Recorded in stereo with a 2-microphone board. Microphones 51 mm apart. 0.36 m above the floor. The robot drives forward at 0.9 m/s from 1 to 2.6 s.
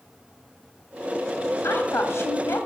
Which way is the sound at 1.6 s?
50° left (ahead or behind).